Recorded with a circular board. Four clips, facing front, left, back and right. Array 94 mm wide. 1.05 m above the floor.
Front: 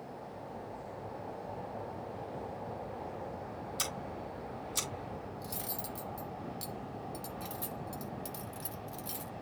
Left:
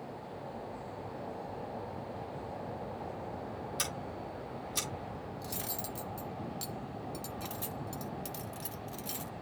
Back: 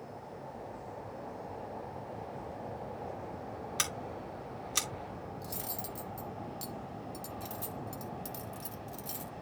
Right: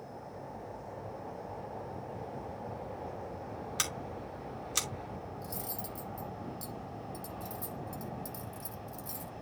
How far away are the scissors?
About 2.5 m.